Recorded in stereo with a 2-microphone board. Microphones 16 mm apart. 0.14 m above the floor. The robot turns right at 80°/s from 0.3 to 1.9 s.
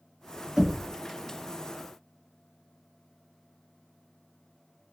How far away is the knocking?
About 1.2 m.